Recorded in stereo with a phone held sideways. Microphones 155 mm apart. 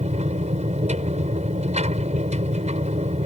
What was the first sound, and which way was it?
A machine running, 50° right (ahead or behind).